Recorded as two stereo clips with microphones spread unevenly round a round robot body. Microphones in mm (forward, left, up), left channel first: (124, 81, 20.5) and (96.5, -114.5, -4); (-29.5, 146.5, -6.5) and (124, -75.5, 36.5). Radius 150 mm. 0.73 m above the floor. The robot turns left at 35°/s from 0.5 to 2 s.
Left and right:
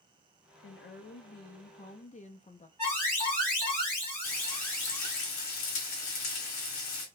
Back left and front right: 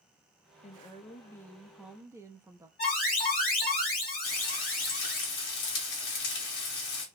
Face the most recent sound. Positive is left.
turn(degrees=100)